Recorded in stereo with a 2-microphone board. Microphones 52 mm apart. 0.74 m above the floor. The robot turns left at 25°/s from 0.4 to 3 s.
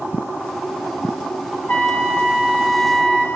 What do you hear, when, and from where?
1.7 s a trumpet: 40° left, 0.8 m; by 3.3 s 5° left, 0.8 m